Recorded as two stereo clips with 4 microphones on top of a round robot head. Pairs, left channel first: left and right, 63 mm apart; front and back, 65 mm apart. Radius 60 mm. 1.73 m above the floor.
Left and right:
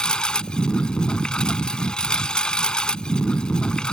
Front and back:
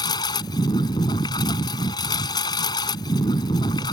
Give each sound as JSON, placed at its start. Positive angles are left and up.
{"t": 0.0, "sound": "a lawn mower", "azimuth_deg": 15}